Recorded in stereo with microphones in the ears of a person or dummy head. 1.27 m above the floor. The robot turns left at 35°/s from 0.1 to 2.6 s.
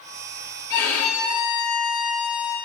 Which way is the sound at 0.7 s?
10° left.